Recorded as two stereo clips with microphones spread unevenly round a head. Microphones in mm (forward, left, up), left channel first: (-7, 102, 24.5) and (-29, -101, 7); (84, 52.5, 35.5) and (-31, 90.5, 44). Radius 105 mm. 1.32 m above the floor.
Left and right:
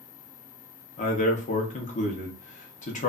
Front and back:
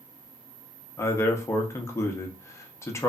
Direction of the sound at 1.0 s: 40° left.